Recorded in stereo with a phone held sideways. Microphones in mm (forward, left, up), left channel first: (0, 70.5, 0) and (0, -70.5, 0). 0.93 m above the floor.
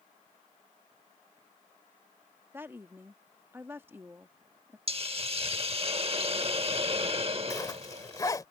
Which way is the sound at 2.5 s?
15° right (ahead or behind).